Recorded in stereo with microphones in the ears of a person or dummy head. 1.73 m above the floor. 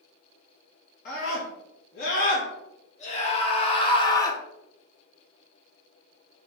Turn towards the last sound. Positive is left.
turn(degrees=15)  # may be behind; listen again after turning